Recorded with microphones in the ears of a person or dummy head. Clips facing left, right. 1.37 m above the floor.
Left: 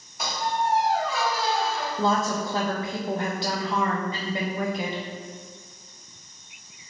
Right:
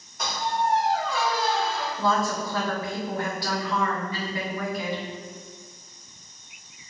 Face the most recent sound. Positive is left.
turn(degrees=25)  # may be behind; listen again after turning